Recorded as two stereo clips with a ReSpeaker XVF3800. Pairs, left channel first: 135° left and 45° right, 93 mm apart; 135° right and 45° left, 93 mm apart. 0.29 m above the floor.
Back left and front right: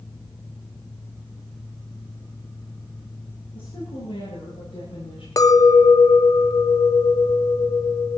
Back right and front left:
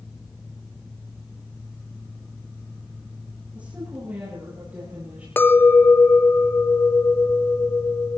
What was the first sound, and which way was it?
A woman speaking, 120° left.